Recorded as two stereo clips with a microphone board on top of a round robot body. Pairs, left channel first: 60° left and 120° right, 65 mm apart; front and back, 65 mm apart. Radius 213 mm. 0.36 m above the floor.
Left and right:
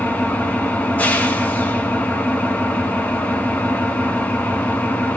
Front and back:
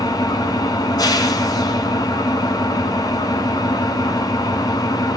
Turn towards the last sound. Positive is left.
turn(degrees=-5)